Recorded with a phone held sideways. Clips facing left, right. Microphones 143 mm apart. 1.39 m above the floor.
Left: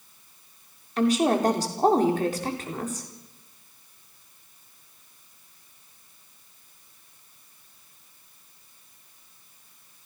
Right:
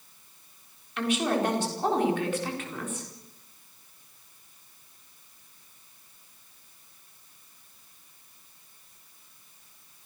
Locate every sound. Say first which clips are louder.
1.0 s a woman speaking: left 5 dB; 40° left (ahead or behind), 4 m